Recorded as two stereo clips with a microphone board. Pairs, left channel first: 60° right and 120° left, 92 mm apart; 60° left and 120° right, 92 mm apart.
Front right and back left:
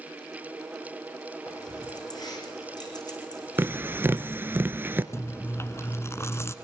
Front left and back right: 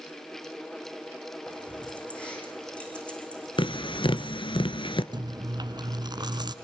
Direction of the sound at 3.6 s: 55° left.